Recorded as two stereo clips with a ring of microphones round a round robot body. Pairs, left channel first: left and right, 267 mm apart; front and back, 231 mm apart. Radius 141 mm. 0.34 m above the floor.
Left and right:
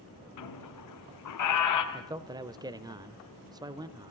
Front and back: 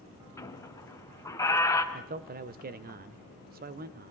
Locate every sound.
0.4 s a squeak: 75° left, 2.5 m
1.9 s a man speaking: 160° right, 1.2 m